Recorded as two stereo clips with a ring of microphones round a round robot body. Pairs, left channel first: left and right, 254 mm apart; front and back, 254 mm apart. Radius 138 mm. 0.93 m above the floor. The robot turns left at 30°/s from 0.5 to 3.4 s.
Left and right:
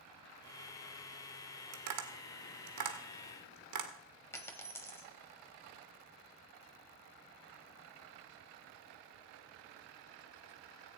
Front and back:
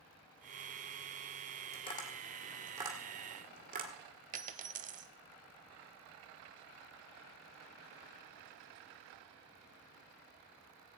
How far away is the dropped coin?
About 0.8 m.